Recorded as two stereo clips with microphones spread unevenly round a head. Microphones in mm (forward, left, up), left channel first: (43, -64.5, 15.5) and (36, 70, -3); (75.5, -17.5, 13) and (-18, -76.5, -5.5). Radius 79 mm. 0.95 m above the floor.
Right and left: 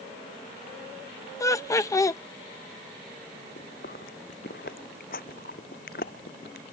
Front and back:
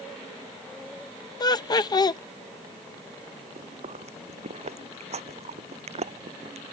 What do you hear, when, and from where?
1.4 s laughter: 20° right
3.6 s chewing: 125° right